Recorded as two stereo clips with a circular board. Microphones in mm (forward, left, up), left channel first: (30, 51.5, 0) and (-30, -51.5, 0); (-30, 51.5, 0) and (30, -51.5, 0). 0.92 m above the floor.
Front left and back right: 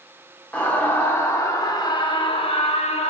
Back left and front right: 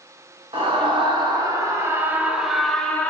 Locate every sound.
0.5 s a scream: 20° right, 2 m; by 3.1 s 45° left, 1.4 m